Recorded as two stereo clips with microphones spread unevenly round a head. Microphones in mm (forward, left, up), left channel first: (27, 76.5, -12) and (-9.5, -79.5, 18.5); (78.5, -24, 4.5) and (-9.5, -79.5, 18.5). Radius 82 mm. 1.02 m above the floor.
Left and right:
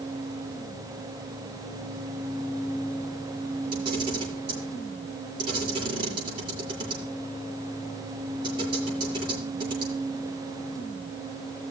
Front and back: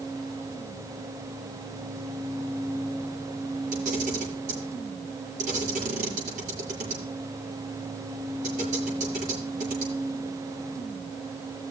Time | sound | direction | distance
3.7 | a camera shutter | 165° right | 6 m